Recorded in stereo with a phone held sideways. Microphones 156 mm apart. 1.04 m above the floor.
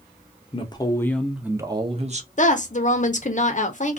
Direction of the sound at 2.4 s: 50° left (ahead or behind).